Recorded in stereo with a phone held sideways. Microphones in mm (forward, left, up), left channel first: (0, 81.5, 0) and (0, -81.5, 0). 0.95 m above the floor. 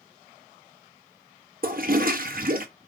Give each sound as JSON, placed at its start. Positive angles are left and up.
{"t": 1.6, "sound": "a toilet flushing", "side_deg": -60, "distance_m": 1.1}